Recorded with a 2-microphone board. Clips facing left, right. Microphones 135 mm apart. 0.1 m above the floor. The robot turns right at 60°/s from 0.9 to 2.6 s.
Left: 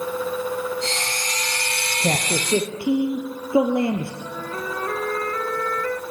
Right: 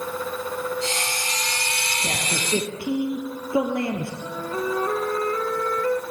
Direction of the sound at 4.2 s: 20° right (ahead or behind).